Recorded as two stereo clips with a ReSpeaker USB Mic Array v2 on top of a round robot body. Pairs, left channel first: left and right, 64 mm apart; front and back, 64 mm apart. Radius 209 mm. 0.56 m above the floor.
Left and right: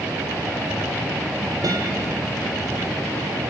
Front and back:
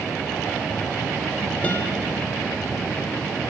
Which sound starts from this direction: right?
A guitar, at 1.6 s.